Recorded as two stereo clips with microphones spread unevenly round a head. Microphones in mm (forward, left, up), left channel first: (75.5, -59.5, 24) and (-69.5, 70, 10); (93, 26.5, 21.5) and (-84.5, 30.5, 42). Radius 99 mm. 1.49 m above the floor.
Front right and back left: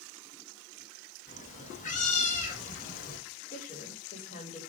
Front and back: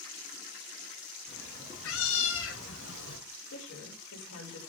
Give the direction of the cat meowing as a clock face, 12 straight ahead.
12 o'clock.